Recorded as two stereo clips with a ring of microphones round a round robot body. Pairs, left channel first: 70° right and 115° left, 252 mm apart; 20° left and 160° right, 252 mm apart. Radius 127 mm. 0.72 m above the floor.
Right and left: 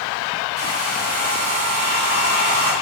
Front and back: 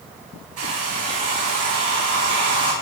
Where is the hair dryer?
165° left, 6 m.